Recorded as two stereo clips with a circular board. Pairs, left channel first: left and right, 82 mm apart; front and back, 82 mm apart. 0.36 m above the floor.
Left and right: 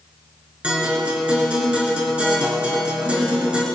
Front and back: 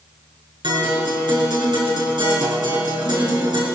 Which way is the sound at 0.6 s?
165° right.